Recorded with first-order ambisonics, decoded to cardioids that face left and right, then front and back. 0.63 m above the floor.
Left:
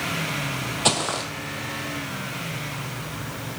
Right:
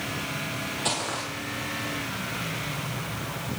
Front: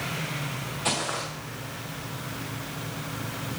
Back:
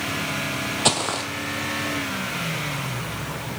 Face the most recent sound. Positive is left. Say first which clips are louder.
# left 7 dB, back 5 dB
turn(degrees=145)